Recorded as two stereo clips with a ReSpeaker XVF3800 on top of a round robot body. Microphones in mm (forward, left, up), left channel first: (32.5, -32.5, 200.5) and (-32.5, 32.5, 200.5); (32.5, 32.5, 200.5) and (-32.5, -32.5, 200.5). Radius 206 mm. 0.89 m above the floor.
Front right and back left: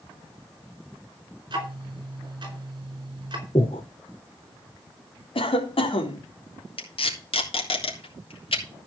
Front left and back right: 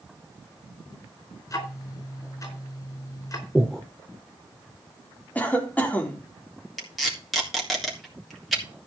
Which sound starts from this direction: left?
Ticking, at 1.5 s.